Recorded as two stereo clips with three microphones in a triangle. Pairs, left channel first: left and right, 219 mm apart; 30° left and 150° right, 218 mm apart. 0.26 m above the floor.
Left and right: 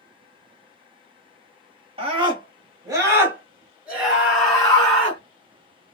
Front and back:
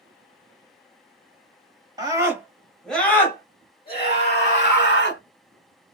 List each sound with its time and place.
2.0 s a scream: 105° right, 1.3 m; by 5.2 s 10° left, 1.7 m